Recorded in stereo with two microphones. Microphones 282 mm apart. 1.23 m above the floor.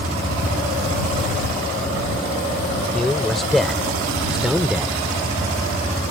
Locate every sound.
2.9 s a man speaking: centre (ahead or behind); by 5.0 s 5° right (ahead or behind)